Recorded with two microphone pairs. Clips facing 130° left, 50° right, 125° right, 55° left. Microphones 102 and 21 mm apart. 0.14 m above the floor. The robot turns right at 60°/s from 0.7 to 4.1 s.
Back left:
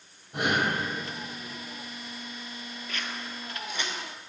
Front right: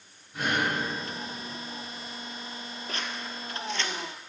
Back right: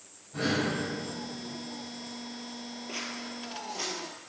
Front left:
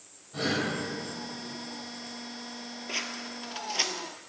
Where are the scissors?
Straight ahead, 0.7 m; by 4.3 s 75° left, 0.7 m.